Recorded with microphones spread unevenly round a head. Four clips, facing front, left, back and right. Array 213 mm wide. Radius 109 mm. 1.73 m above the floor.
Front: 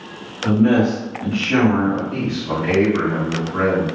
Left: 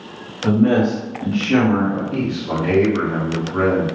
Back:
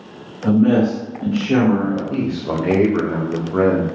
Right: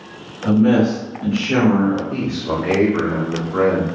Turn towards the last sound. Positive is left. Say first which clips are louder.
# even, back 2 dB
turn(degrees=-160)